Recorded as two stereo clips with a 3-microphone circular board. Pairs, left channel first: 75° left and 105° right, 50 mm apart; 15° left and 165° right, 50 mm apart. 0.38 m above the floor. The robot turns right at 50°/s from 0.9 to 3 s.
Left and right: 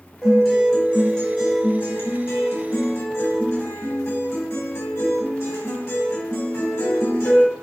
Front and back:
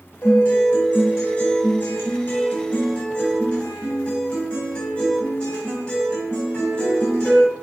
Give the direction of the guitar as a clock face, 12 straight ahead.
1 o'clock.